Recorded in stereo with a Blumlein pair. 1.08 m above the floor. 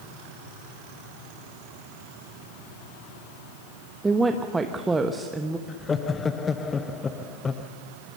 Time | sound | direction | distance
4.0 | a woman speaking | 10° right | 1.1 m
5.7 | laughter | 15° left | 1.0 m